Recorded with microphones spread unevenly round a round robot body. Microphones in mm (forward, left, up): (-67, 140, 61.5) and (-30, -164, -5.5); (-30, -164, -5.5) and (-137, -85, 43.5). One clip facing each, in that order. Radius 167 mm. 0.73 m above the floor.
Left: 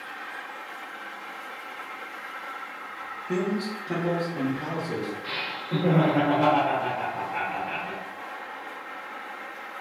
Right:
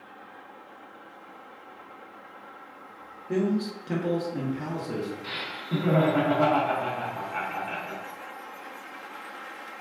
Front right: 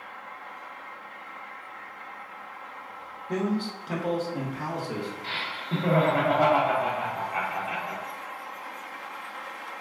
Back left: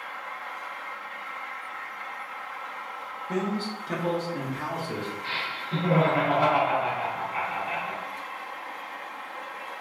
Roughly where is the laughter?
Ahead right.